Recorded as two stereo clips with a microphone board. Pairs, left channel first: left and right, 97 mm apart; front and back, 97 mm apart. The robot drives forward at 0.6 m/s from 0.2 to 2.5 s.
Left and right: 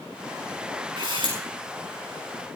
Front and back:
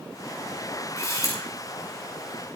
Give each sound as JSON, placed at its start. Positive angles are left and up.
{"t": 1.0, "sound": "a camera shutter", "azimuth_deg": -50, "distance_m": 7.0}